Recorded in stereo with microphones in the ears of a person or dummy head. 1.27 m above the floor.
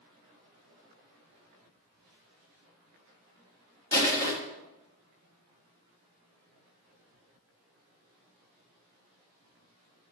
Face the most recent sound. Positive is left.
turn(degrees=15)  # may be behind; listen again after turning